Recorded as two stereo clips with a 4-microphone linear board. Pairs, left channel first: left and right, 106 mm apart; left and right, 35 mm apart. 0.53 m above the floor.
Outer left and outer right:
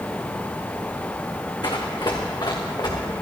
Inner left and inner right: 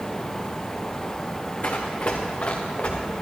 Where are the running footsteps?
45° left (ahead or behind), 2.5 m.